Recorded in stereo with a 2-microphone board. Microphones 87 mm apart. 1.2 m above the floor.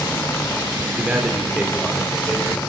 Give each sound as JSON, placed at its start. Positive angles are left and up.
{"t": 1.0, "sound": "a man speaking", "side_deg": -15, "distance_m": 3.0}